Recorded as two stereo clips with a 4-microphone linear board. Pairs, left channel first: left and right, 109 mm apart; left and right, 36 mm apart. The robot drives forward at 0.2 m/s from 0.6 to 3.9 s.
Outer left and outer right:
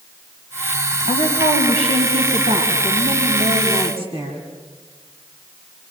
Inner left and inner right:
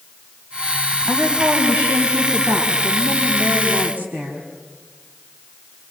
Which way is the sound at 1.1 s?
60° right (ahead or behind).